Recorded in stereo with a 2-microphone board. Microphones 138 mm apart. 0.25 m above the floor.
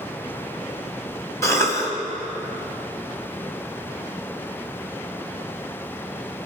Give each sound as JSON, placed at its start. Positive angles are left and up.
{"t": 1.4, "sound": "a cough", "side_deg": 20, "distance_m": 1.1}